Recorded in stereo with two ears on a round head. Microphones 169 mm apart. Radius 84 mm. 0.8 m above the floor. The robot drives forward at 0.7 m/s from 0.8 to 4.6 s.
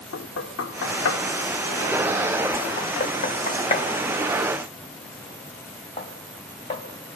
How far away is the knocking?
About 1.3 m.